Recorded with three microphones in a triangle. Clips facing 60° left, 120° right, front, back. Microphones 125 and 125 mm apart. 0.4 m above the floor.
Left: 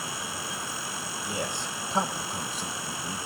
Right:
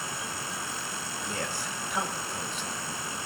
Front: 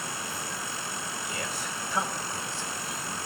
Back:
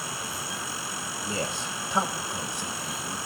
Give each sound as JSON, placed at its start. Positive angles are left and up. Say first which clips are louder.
{"t": 1.2, "sound": "a man speaking", "louder": "left 2 dB, back 7 dB", "azimuth_deg": 135, "distance_m": 1.3}